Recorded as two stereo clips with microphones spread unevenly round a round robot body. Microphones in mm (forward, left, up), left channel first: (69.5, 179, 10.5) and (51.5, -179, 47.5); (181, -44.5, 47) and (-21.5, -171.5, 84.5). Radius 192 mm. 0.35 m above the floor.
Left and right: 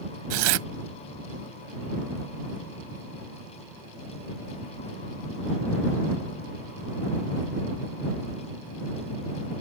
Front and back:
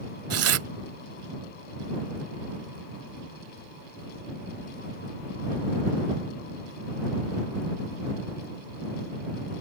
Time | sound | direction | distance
0.3 | tearing paper | 120° right | ?